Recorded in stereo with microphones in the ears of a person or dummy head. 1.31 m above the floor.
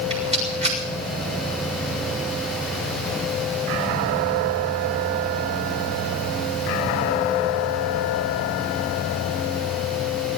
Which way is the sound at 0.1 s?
30° right (ahead or behind).